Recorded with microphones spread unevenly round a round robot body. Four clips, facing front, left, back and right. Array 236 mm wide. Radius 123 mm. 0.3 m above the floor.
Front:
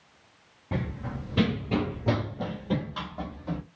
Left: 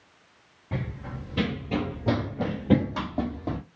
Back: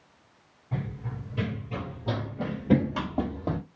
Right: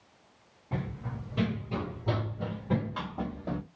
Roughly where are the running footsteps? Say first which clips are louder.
Left 2 dB, front 3 dB; ahead left.